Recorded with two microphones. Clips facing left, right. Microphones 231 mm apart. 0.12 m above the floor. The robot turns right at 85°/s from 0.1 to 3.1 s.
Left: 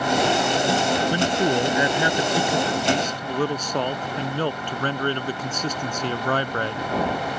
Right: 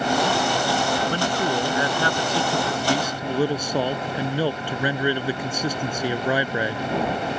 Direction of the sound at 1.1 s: 10° left (ahead or behind).